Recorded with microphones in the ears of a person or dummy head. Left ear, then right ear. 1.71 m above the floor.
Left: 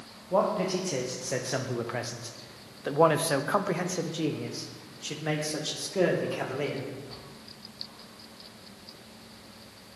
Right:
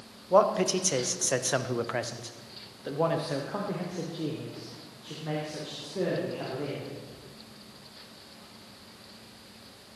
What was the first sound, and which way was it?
A man speaking, 60° right (ahead or behind).